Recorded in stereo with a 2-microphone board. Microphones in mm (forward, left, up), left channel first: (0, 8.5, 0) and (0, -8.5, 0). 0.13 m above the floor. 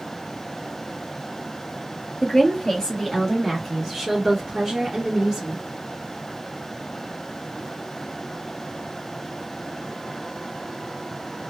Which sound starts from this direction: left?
A woman speaking, at 2.2 s.